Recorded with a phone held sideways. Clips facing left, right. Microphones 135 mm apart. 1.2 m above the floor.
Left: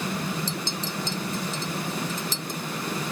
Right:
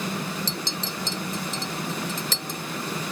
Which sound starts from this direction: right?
A clink, at 0.5 s.